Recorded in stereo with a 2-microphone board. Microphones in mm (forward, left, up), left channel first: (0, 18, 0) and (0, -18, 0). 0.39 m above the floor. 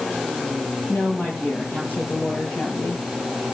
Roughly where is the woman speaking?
Left.